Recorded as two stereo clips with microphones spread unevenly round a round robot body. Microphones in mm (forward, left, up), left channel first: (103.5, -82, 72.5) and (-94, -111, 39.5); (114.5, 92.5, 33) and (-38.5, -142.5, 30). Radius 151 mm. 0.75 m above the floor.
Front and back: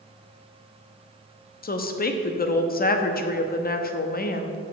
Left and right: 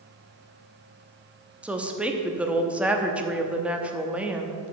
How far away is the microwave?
I don't hear a microwave.